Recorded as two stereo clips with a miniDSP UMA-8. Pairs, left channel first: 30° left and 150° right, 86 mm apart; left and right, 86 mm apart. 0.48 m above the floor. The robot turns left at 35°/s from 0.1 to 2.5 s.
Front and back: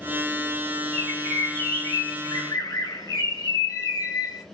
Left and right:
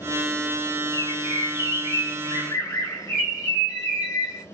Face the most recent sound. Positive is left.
turn(degrees=45)